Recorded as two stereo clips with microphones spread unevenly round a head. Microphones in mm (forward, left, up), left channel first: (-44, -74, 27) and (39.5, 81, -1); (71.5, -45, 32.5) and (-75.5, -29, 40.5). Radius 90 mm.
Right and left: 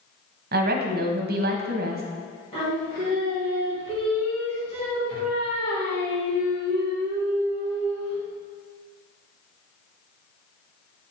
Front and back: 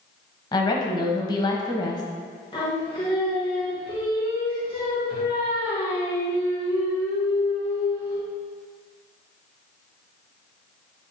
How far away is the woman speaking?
About 1.1 m.